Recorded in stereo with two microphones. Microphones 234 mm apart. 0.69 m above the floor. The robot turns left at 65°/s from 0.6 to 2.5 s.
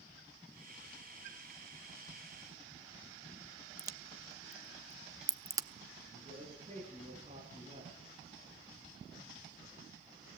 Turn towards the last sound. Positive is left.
turn(degrees=-25)  # may be behind; listen again after turning